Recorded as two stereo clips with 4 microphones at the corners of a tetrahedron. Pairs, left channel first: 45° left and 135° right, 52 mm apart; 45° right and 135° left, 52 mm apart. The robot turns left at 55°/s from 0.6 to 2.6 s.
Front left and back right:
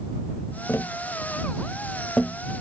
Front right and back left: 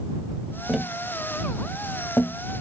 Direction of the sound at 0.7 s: 60° left.